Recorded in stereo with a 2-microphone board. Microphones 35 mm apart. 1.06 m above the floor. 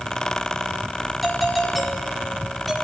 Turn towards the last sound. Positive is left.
turn(degrees=0)  # may be behind; listen again after turning